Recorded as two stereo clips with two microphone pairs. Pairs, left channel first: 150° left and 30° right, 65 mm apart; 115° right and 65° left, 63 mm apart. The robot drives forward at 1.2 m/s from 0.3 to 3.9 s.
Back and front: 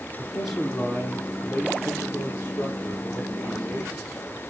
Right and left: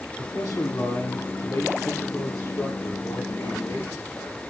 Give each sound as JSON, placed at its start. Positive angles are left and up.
{"t": 0.2, "sound": "a man speaking", "azimuth_deg": -115, "distance_m": 2.5}